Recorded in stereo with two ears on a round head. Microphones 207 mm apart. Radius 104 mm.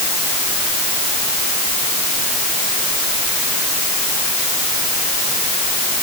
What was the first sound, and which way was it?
Only background noise.